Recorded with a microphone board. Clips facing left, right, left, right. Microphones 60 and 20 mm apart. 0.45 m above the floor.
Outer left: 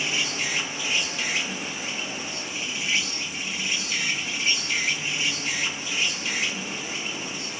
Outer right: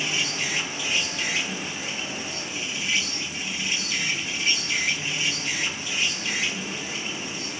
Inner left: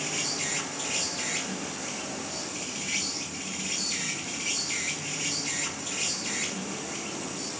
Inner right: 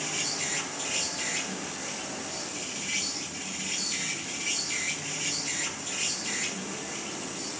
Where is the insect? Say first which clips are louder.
Even, inner left 1 dB; 25° left (ahead or behind), 7 m.